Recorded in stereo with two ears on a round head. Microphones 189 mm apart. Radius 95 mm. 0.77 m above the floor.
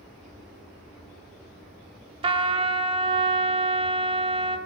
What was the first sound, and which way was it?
A trumpet, 25° right (ahead or behind).